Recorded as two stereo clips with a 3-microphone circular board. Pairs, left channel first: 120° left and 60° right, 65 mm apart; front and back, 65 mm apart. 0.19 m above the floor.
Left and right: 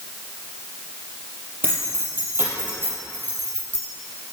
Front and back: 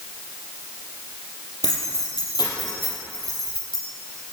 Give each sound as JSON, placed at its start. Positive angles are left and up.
{"t": 1.6, "sound": "keys jangling", "azimuth_deg": -5, "distance_m": 4.5}